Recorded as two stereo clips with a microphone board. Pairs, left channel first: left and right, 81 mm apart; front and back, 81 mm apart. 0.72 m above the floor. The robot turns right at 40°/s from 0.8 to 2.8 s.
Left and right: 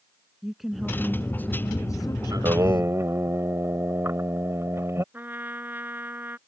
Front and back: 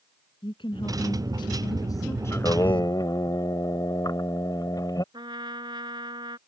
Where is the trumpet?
160° right.